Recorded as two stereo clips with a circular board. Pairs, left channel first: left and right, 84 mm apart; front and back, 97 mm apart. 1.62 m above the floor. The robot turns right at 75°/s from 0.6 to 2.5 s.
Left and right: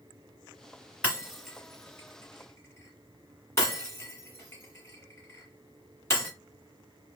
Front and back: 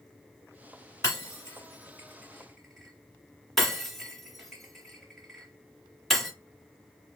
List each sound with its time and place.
1.0 s breaking glass: 25° right, 1.7 m; by 6.3 s 85° left, 1.7 m